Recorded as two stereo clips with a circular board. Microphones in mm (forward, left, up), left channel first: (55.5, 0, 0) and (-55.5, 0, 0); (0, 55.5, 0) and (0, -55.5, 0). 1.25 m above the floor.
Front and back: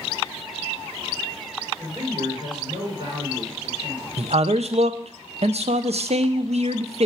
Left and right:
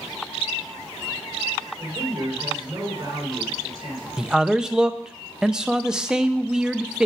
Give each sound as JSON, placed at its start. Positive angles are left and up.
{"t": 1.8, "sound": "a man speaking", "azimuth_deg": -145, "distance_m": 4.5}
{"t": 4.2, "sound": "a man speaking", "azimuth_deg": -175, "distance_m": 0.5}